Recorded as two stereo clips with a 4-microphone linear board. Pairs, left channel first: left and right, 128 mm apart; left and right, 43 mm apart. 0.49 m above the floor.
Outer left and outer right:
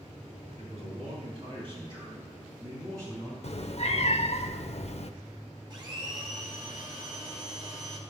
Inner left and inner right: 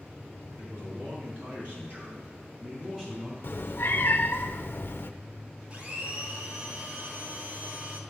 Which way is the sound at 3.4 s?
55° left (ahead or behind).